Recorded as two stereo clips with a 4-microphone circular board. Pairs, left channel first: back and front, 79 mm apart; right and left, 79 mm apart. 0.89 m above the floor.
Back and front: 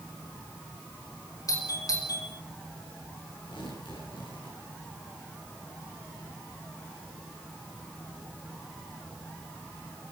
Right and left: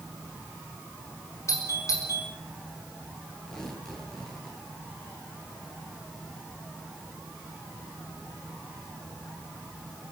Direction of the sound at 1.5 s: 140° right.